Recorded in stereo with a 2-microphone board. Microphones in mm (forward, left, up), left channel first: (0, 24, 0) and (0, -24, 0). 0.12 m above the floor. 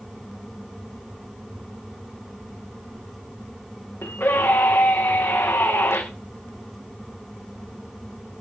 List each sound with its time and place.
4.0 s a scream: 65° left (ahead or behind), 9 m